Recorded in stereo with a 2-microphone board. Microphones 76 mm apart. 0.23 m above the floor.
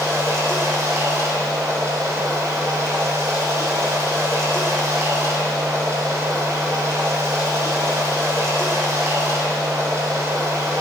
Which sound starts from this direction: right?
Running water, at 0.0 s.